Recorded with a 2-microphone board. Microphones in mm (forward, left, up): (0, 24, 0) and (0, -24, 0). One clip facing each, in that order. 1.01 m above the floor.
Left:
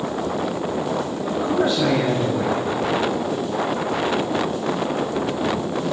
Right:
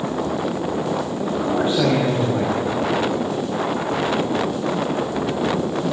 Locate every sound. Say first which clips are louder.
1.2 s a man speaking: left 1 dB; 30° right (ahead or behind), 6.5 m